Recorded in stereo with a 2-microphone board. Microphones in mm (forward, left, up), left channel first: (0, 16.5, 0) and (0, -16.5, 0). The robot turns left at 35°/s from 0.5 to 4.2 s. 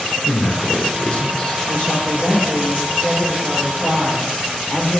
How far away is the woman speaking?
About 4.5 m.